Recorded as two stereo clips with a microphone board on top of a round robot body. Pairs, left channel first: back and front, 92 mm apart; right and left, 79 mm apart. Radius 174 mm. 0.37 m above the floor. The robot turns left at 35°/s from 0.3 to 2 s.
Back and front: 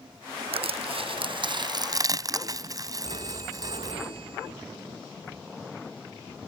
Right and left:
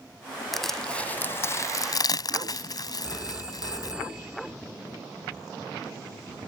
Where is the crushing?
Straight ahead; by 3.9 s 50° right.